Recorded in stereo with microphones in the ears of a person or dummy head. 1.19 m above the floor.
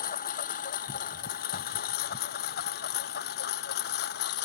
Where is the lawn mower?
40° left (ahead or behind); by 4.5 s 55° left (ahead or behind).